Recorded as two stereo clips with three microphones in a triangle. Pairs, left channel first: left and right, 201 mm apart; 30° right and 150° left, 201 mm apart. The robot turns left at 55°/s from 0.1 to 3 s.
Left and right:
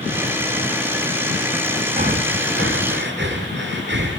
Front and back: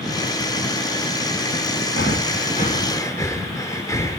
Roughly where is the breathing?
Ahead right.